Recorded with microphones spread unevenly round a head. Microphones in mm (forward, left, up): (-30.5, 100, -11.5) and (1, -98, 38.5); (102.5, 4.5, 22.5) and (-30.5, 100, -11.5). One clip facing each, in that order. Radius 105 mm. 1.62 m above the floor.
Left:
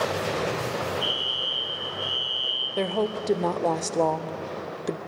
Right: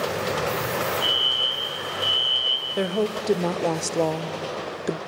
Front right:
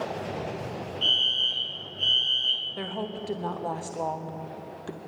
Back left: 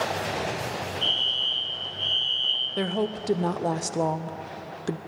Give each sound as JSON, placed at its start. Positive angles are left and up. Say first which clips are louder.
{"t": 1.0, "sound": "a fire alarm", "louder": "right 2 dB, back left 2 dB", "azimuth_deg": 10, "distance_m": 2.5}
{"t": 2.8, "sound": "a woman speaking", "louder": "right 2 dB, back left 6 dB", "azimuth_deg": -160, "distance_m": 0.5}